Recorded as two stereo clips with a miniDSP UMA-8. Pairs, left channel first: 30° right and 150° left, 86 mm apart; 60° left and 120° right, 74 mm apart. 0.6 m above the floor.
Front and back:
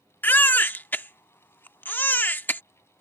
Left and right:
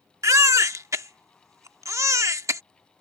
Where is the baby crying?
95° right.